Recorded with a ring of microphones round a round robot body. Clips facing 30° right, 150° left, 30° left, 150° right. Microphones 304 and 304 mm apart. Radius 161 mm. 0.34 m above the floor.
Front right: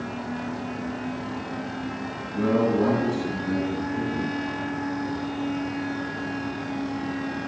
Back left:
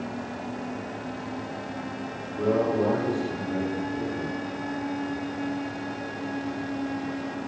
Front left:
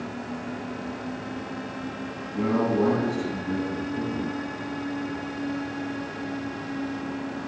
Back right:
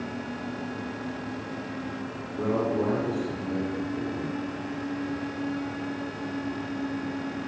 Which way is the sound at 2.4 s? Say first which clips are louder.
Front right 2 dB, front left 3 dB; 10° right.